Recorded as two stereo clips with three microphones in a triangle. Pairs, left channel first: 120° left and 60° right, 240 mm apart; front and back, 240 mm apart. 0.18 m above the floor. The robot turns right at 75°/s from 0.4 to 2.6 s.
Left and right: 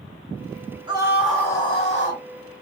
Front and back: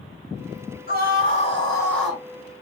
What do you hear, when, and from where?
0.9 s a scream: straight ahead, 1.6 m; by 2.2 s 100° left, 1.6 m